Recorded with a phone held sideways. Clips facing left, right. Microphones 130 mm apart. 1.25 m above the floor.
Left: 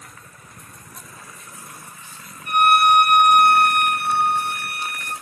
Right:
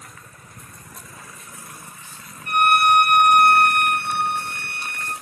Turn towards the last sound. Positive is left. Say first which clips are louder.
# left 1 dB
turn(degrees=10)  # may be behind; listen again after turning